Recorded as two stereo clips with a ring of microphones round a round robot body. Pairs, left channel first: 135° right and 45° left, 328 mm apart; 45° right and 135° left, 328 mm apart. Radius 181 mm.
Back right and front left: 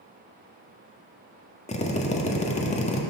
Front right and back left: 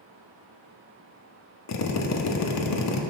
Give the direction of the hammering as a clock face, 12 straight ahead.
No hammering in this recording.